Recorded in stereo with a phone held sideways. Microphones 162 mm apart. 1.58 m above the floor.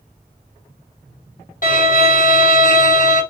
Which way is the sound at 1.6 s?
60° left (ahead or behind).